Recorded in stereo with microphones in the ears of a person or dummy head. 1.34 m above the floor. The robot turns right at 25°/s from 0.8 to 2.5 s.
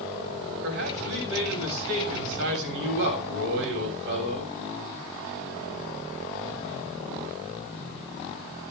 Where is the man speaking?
110° right, 7 m; by 4.5 s 70° right, 7 m.